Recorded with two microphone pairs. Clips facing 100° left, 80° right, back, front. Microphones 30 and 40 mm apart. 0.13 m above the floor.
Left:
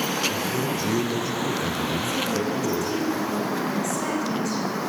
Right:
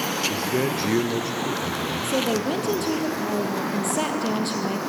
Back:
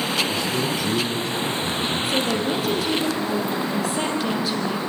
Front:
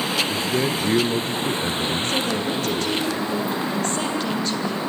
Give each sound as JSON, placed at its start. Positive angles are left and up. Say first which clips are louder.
{"t": 0.3, "sound": "a man speaking", "louder": "right 2 dB, front 1 dB", "azimuth_deg": -50, "distance_m": 2.0}
{"t": 2.0, "sound": "a woman speaking", "louder": "right 2 dB, back 1 dB", "azimuth_deg": -100, "distance_m": 4.0}